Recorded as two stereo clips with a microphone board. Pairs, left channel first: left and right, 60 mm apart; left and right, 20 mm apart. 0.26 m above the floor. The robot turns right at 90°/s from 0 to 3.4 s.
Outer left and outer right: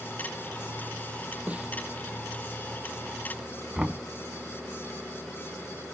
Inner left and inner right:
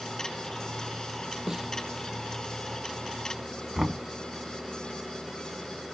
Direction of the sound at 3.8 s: 10° right (ahead or behind).